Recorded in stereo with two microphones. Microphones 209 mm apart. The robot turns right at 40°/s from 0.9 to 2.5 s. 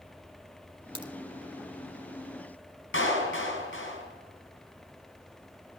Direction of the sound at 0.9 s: 25° right (ahead or behind).